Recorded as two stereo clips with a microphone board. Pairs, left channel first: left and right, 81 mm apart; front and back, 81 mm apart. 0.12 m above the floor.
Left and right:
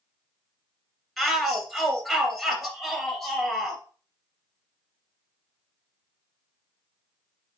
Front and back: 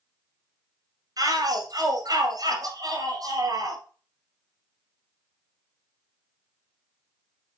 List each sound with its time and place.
1.2 s a shout: straight behind, 2.5 m